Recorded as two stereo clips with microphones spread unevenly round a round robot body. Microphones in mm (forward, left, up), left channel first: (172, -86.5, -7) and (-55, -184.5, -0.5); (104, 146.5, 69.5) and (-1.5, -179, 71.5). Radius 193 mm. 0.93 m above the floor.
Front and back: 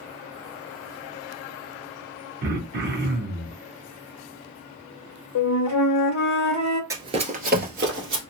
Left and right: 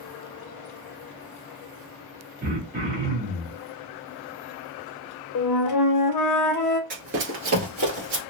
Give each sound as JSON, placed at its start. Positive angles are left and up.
{"t": 2.4, "sound": "throat clearing", "azimuth_deg": -165, "distance_m": 0.6}
{"t": 5.3, "sound": "a flute", "azimuth_deg": 35, "distance_m": 0.6}
{"t": 6.9, "sound": "running footsteps", "azimuth_deg": -105, "distance_m": 0.9}